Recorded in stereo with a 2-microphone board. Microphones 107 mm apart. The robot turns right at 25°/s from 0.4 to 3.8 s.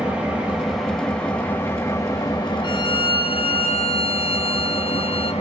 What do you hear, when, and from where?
0.0 s an engine running: 10° right, 2.0 m; by 5.4 s 75° left, 2.0 m
2.6 s a violin: 45° left (ahead or behind), 0.8 m; by 5.3 s 65° left (ahead or behind), 0.8 m